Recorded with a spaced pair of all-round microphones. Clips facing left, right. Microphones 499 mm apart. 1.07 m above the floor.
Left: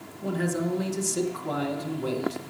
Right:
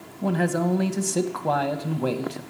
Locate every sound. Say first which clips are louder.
0.2 s a man speaking: right 4 dB; 70° right (ahead or behind), 0.8 m